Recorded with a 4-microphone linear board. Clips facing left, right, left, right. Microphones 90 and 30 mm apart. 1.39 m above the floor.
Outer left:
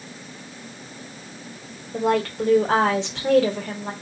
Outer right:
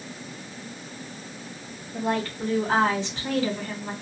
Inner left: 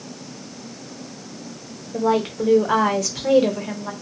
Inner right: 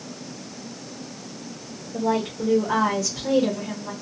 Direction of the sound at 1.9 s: 80° left.